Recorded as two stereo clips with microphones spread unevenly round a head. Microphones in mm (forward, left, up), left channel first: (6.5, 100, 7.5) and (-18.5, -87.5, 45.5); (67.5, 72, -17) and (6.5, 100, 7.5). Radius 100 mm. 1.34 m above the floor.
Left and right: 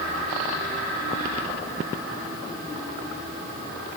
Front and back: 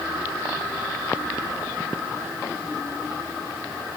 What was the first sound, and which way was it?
Only background noise.